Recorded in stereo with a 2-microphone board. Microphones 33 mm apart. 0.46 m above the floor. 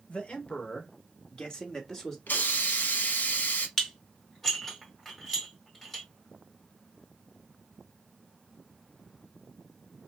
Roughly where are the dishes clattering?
Centre.